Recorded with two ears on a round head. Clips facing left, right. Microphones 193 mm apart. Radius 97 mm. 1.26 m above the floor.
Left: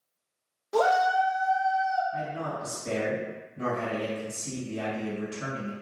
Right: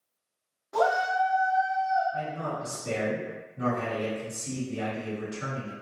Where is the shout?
40° left (ahead or behind), 0.6 m.